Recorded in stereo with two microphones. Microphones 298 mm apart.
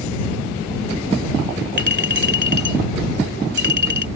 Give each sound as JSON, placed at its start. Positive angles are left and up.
{"t": 1.8, "sound": "a clink", "side_deg": -35}